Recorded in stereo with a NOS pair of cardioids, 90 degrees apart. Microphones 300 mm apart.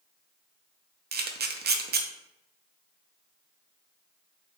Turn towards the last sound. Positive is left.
turn(degrees=-35)